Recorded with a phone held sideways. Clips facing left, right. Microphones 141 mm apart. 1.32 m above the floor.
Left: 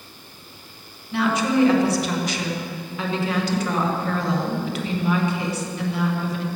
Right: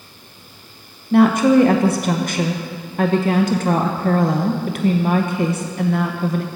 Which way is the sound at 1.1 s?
50° right (ahead or behind).